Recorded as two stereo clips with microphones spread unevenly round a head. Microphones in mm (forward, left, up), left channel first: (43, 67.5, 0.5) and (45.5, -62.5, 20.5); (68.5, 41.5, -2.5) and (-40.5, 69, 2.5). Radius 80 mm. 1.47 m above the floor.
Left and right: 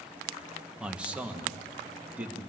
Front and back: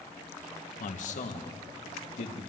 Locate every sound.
0.8 s a man speaking: 5° right, 1.6 m; by 2.4 s 10° right, 2.5 m